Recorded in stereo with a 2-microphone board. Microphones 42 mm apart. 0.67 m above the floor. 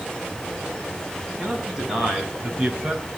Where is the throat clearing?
No throat clearing in this recording.